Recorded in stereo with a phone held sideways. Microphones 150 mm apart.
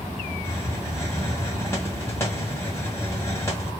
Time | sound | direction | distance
0.4 | a hiss | 15° left (ahead or behind) | 1.5 m